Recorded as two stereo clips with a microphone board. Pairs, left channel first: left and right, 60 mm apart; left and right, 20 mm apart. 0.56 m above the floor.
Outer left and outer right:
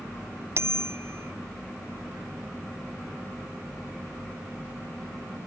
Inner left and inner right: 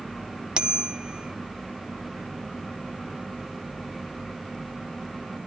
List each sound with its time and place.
0.6 s a bicycle bell: 45° right (ahead or behind)